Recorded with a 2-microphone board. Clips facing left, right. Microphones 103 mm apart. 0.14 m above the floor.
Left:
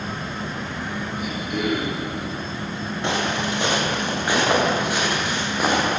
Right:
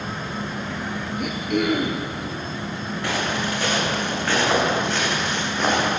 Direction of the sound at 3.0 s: 20° left (ahead or behind).